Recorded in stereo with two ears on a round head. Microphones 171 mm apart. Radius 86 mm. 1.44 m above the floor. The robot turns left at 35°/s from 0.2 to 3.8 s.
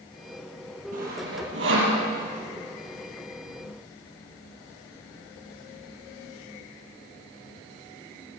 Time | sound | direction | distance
0.9 | sawing | 45° right (ahead or behind) | 5.5 m